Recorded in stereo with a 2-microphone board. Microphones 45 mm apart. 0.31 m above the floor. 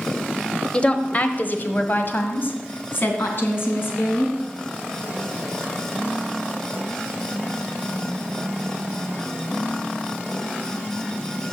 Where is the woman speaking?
20° left (ahead or behind), 1.0 m; by 4.3 s 50° left (ahead or behind), 3.5 m.